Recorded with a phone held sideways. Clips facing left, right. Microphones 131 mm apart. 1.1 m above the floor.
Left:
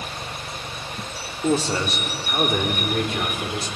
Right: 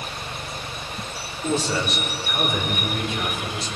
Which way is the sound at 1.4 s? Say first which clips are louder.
Left 2 dB; 40° left (ahead or behind).